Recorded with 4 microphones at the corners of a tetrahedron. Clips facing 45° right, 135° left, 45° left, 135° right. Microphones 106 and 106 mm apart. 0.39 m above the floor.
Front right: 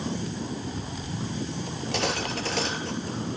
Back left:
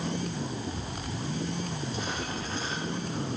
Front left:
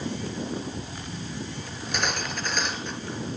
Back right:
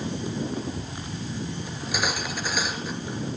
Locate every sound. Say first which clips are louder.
1.7 s cutlery clinking: front right 5 dB, even; 50° right, 4 m